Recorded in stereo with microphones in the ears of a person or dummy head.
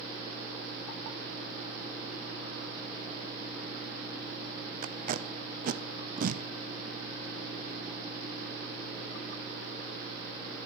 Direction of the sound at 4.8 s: 50° right (ahead or behind).